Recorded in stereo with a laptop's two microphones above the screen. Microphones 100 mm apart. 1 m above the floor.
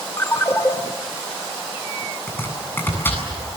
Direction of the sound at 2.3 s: 20° left (ahead or behind).